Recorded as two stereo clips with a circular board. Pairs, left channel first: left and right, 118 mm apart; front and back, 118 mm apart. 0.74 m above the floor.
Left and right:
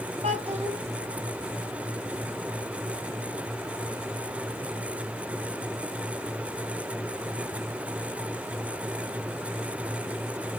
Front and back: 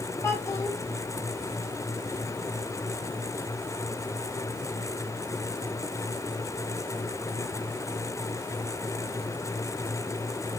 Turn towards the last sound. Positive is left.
turn(degrees=-65)